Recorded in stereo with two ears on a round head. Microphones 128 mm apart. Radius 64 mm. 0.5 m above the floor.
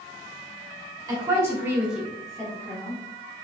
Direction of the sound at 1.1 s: 25° right (ahead or behind).